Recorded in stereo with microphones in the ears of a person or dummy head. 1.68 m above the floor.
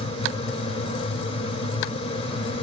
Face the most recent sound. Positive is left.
turn(degrees=25)  # may be behind; listen again after turning